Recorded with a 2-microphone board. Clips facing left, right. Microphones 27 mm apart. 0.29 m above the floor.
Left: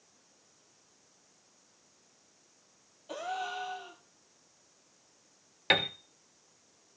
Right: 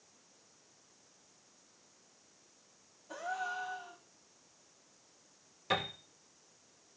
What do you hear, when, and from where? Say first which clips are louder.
3.1 s a gasp: left 2 dB; 85° left, 1.2 m
5.7 s a piano: left 7 dB; 80° left, 0.7 m